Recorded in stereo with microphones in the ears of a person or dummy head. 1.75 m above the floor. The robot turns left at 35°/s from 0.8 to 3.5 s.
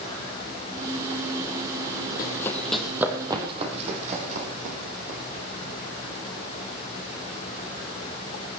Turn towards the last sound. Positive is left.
turn(degrees=-55)  # may be behind; listen again after turning